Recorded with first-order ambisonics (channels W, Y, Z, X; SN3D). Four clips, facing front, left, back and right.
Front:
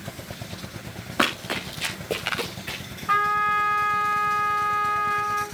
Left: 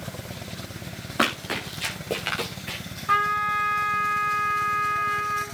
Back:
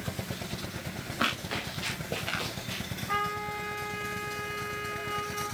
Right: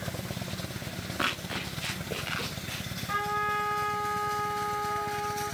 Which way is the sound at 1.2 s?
30° left.